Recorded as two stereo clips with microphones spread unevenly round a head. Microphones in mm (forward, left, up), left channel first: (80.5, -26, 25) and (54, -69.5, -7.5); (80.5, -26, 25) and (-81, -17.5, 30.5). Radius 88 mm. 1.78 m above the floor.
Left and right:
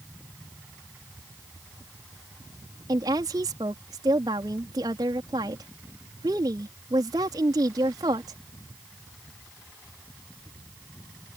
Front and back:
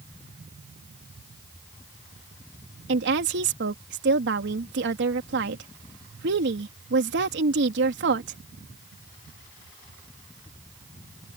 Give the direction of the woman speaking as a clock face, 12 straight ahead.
6 o'clock.